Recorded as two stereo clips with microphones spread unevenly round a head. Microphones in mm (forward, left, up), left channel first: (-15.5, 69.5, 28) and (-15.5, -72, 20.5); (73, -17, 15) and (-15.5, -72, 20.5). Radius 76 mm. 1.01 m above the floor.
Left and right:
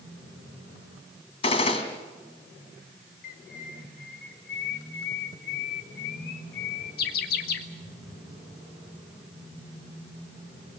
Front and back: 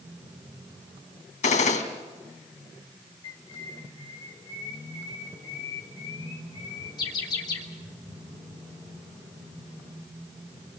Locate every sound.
1.4 s a gunshot: 35° left, 2.5 m
3.2 s a bird: 90° left, 1.8 m